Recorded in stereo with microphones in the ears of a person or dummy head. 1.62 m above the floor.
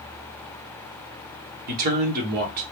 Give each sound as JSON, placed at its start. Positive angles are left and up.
{"t": 1.7, "sound": "a man speaking", "side_deg": -45, "distance_m": 1.4}